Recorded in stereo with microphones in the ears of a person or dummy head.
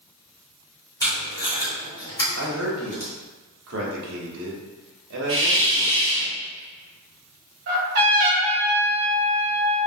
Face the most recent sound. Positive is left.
turn(degrees=-55)  # may be behind; listen again after turning